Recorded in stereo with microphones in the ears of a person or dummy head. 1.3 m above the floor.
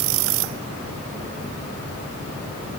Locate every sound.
Only background noise.